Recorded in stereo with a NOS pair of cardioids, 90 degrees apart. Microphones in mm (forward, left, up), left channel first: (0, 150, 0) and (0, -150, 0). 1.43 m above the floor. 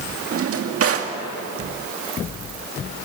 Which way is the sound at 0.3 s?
50° right.